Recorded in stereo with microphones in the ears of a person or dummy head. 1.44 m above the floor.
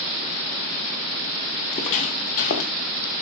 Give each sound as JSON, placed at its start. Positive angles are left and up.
{"t": 1.6, "sound": "footsteps", "side_deg": 25, "distance_m": 2.0}